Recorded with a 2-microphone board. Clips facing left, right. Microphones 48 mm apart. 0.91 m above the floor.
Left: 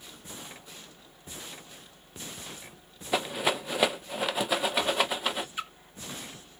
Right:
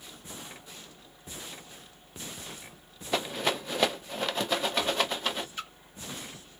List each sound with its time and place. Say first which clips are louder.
3.1 s a rattle: left 1 dB; 10° left (ahead or behind), 0.6 m
5.6 s a splash: left 3 dB; 15° left (ahead or behind), 0.6 m